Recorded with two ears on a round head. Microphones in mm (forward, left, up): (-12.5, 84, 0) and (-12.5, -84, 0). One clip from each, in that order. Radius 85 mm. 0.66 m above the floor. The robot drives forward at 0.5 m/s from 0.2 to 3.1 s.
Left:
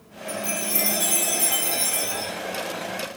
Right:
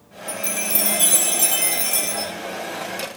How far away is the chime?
About 3 m.